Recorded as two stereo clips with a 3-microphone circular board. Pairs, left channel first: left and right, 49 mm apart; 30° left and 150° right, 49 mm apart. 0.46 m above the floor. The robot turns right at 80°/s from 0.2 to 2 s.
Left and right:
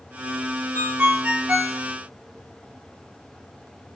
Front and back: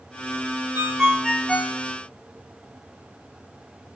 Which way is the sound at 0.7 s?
105° right.